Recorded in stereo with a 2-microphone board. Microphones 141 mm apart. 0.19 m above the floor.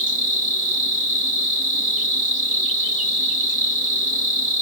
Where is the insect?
70° left (ahead or behind), 1.3 m.